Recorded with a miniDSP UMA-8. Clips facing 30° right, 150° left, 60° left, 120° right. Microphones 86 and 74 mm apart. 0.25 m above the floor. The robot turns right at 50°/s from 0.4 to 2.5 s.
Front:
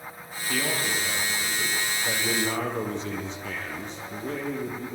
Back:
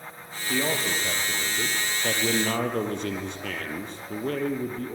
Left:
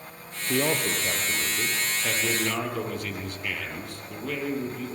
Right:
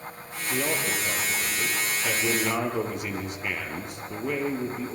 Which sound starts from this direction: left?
A man speaking, at 0.5 s.